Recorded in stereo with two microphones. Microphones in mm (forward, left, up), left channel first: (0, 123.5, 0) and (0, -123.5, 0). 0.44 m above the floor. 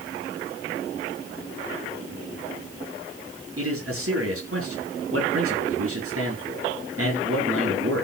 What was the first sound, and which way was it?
A man speaking, 65° right (ahead or behind).